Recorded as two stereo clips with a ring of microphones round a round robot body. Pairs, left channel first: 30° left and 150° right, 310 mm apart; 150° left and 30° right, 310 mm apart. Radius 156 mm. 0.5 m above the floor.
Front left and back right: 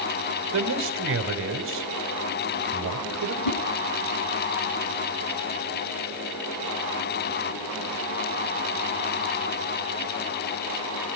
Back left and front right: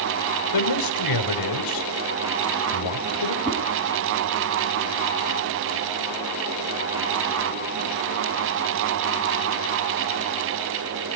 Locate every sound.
0.5 s a man speaking: 160° left, 2.5 m
3.5 s a whoosh: 55° left, 3.5 m